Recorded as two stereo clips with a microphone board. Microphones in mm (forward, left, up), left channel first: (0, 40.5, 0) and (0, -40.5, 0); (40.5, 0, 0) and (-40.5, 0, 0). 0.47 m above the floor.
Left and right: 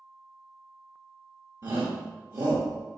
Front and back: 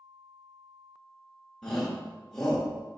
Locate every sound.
1.6 s a shout: 80° right, 0.9 m